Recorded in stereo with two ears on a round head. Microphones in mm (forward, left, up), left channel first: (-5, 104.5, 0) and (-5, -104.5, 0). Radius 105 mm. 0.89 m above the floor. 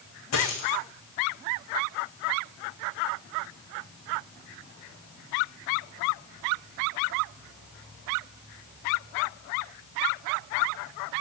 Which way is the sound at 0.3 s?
75° left (ahead or behind).